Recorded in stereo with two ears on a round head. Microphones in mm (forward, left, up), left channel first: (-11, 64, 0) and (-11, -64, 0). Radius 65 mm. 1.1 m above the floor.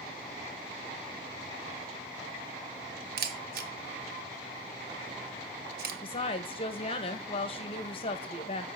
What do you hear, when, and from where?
3.2 s a camera shutter: 80° right, 1.1 m
6.0 s a woman speaking: 40° left (ahead or behind), 1.2 m